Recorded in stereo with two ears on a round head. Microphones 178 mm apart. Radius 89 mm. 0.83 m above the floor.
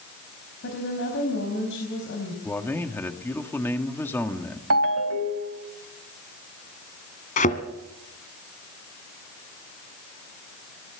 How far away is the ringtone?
About 1.9 m.